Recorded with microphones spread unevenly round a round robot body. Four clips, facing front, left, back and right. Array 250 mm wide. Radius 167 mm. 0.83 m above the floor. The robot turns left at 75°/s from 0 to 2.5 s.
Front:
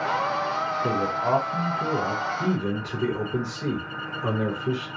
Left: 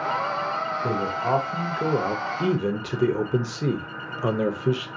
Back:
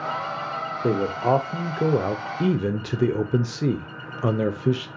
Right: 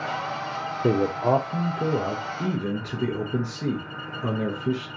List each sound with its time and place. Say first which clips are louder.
0.8 s a man speaking: right 6 dB, back 5 dB; 115° right, 0.6 m; by 4.9 s 120° left, 0.6 m